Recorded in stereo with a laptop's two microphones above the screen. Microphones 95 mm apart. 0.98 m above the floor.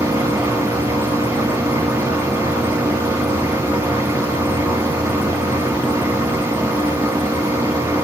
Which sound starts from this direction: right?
A machine running, at 0.0 s.